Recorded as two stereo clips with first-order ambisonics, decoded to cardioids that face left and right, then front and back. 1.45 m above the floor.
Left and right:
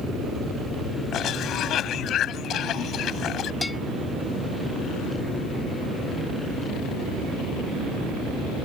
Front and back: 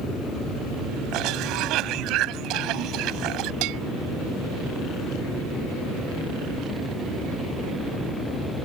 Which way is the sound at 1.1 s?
145° left.